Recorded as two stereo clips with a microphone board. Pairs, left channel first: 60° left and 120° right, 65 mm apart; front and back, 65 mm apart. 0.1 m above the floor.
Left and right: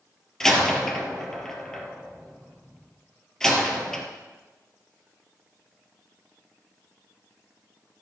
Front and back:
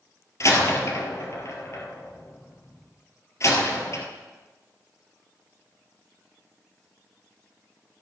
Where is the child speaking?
No child speaking in this recording.